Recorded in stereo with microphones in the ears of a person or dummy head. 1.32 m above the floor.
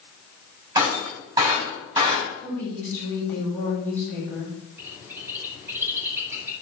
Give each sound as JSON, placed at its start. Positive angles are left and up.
{"t": 0.8, "sound": "breaking glass", "side_deg": -15, "distance_m": 4.0}
{"t": 2.4, "sound": "a woman speaking", "side_deg": 15, "distance_m": 5.5}
{"t": 4.8, "sound": "a bird", "side_deg": -15, "distance_m": 2.5}